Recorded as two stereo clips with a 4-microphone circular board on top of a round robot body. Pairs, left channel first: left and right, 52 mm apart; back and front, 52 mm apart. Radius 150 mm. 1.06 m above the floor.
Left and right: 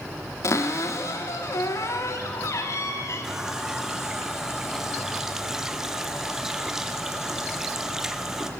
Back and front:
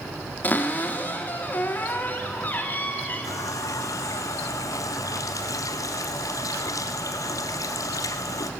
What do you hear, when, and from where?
0.4 s a cupboard door: 120° left, 1.1 m
3.2 s a running tap: 175° right, 0.7 m